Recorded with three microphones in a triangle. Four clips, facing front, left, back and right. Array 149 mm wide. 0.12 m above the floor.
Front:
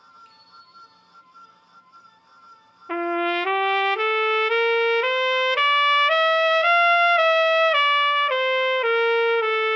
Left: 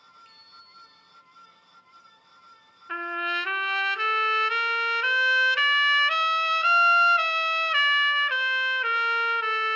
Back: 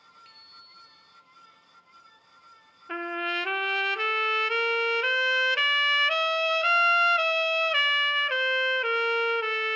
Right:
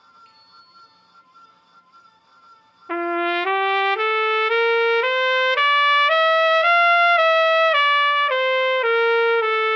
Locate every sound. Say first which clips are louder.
0.2 s a bicycle bell: right 3 dB, front 5 dB; 175° left, 8.5 m
2.9 s a trumpet: right 9 dB, front 8 dB; 60° right, 0.5 m